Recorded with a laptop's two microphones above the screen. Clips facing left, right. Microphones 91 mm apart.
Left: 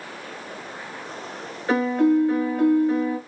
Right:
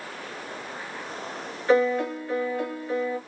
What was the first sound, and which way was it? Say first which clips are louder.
A piano: left 3 dB; 15° left (ahead or behind).